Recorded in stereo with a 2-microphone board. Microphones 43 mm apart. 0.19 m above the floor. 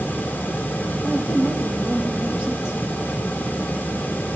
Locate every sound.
1.0 s a woman speaking: 65° left (ahead or behind), 5 m